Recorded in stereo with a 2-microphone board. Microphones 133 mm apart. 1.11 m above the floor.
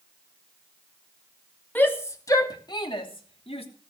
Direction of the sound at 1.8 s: 15° left (ahead or behind).